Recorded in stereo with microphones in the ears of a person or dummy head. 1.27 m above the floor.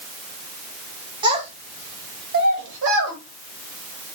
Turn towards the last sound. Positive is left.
turn(degrees=-70)  # may be behind; listen again after turning